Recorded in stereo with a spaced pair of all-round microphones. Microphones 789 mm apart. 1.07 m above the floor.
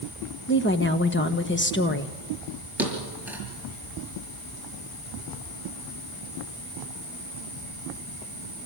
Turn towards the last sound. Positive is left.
turn(degrees=0)  # may be behind; listen again after turning